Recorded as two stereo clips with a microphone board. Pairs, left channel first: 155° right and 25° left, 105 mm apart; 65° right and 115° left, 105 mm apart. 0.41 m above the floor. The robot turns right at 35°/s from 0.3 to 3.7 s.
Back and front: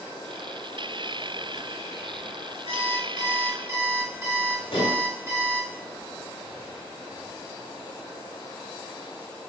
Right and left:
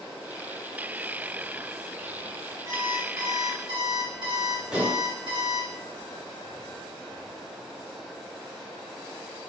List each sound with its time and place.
2.6 s an alarm clock: 50° left, 1.7 m; by 5.7 s 85° left, 1.7 m
4.7 s dishes clattering: 170° right, 1.2 m